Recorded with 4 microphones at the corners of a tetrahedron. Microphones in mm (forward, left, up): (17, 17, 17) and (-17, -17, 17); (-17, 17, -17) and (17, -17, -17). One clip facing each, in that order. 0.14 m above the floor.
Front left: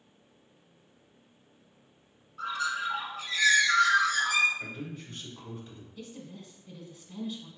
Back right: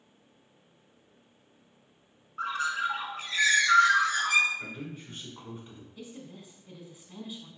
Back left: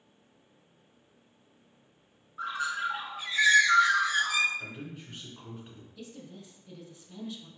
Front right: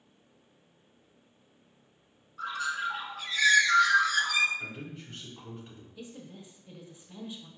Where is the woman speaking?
75° right, 1.1 m.